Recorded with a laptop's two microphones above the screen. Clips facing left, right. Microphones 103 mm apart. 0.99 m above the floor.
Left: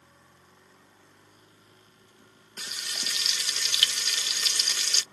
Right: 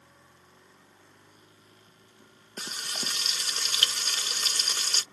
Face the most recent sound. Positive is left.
turn(degrees=-40)  # may be behind; listen again after turning